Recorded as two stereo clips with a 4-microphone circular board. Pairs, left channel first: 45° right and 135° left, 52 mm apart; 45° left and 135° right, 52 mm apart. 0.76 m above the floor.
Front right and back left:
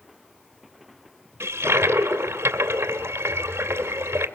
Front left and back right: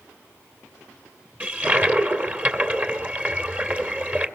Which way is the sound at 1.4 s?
170° left.